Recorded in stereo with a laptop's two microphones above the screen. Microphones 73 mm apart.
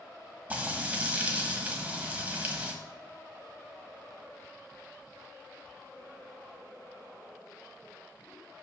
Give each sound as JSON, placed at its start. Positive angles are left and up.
{"t": 0.5, "sound": "frying", "side_deg": -20, "distance_m": 1.1}